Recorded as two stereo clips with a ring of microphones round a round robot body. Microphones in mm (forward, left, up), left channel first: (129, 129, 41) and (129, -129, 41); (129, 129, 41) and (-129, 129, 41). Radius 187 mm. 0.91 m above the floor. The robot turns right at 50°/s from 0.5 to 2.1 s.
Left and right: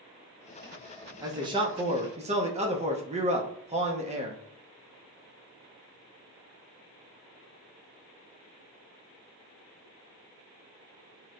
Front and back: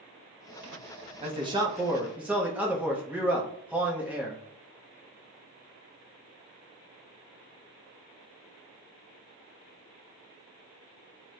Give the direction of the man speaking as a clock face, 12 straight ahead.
5 o'clock.